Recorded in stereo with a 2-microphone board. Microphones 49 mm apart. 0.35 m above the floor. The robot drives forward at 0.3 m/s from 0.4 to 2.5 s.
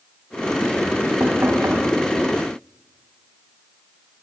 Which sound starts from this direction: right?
Knocking, at 1.2 s.